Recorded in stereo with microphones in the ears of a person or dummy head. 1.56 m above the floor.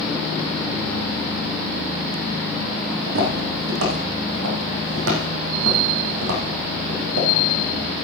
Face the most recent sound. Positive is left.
turn(degrees=-55)  # may be behind; listen again after turning